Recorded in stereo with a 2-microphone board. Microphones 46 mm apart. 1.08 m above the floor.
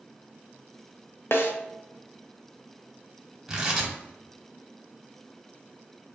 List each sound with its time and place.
1.3 s a snare drum: 55° left (ahead or behind), 0.5 m
3.5 s tearing paper: 10° right (ahead or behind), 0.9 m